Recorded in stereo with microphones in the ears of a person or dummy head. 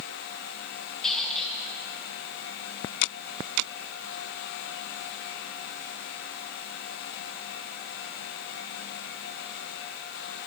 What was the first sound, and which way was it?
A squeak, 5° left (ahead or behind).